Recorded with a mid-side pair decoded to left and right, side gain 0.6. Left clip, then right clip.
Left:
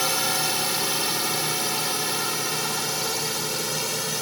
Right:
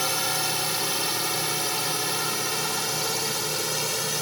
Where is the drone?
10° left; by 4.2 s 5° right.